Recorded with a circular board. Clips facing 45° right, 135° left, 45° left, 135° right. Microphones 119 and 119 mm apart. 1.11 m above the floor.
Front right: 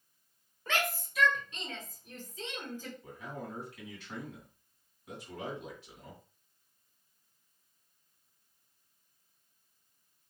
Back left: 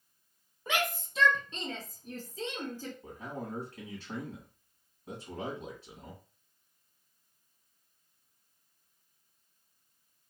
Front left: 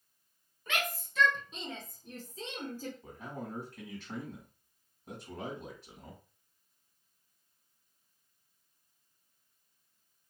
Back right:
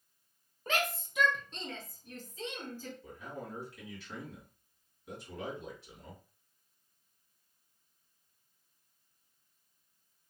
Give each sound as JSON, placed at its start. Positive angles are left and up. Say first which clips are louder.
{"t": 0.7, "sound": "a shout", "louder": "back left 1 dB, back right 3 dB", "azimuth_deg": -155, "distance_m": 0.8}
{"t": 3.0, "sound": "a man speaking", "louder": "back left 2 dB, front left 1 dB", "azimuth_deg": 80, "distance_m": 1.9}